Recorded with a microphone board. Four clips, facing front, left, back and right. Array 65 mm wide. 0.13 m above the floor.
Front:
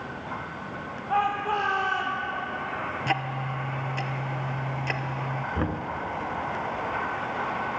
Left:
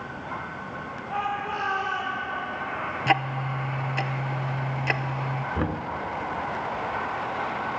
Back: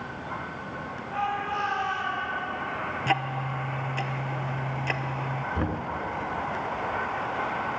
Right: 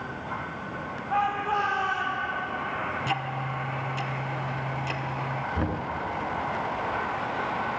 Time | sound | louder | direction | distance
1.1 | a shout | right 3 dB, front 4 dB | straight ahead | 4.5 m
3.1 | ticking | left 5 dB, back 2 dB | 95° left | 0.7 m
5.5 | knocking | left 2 dB, front 1 dB | 65° left | 0.8 m